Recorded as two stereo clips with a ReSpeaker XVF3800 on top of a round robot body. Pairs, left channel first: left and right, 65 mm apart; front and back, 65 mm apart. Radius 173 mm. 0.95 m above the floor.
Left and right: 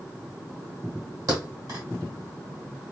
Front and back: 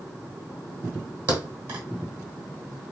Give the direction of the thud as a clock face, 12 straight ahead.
4 o'clock.